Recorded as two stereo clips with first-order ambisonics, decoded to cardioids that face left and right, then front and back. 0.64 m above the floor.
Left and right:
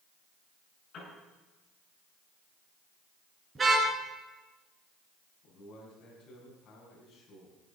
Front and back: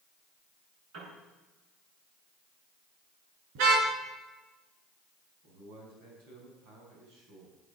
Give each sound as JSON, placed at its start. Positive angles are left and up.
{"t": 0.9, "sound": "a piano", "azimuth_deg": 150, "distance_m": 8.5}
{"t": 3.5, "sound": "a car horn", "azimuth_deg": -165, "distance_m": 5.0}
{"t": 5.4, "sound": "a man speaking", "azimuth_deg": 145, "distance_m": 5.0}